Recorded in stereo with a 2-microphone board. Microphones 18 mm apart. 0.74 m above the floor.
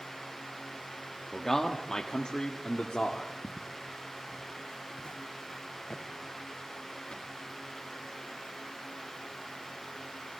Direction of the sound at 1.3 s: 15° left (ahead or behind).